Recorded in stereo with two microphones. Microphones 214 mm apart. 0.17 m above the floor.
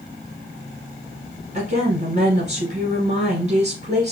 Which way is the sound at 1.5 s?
35° right (ahead or behind).